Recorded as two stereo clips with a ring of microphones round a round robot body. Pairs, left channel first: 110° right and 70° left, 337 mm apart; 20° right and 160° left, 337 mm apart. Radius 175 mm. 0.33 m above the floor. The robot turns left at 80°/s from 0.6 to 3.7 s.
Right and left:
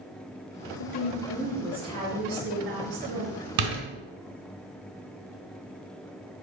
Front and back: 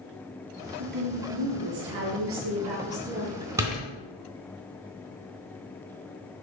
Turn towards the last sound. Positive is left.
turn(degrees=65)